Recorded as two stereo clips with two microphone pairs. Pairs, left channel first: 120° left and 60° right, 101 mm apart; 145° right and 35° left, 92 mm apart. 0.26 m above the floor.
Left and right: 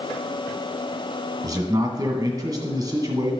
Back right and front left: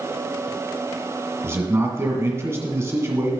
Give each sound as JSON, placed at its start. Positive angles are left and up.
{"t": 1.4, "sound": "a man speaking", "azimuth_deg": -15, "distance_m": 1.7}